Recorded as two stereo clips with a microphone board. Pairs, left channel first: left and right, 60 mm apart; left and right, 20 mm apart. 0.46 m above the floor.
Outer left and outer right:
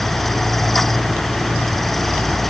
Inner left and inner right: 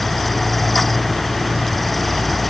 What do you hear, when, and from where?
Only background noise.